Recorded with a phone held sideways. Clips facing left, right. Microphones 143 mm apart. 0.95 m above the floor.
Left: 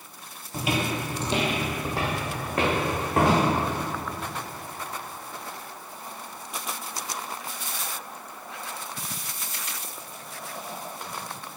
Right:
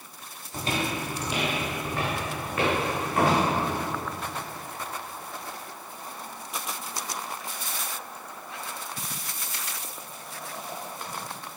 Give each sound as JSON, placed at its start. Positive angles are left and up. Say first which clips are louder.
{"t": 0.5, "sound": "footsteps", "louder": "left 2 dB", "side_deg": 5, "distance_m": 1.0}